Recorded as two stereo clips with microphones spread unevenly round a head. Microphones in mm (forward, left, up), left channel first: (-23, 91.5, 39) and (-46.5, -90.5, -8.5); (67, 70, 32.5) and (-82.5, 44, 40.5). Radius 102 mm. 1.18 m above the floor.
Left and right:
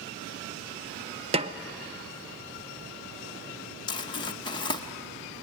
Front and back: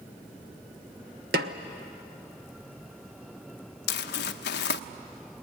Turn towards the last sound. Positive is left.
turn(degrees=15)